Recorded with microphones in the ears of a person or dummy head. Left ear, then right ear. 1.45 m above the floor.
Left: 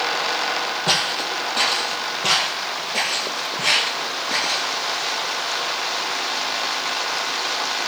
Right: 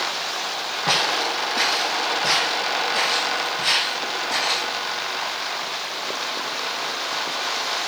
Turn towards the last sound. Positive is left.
turn(degrees=10)  # may be behind; listen again after turning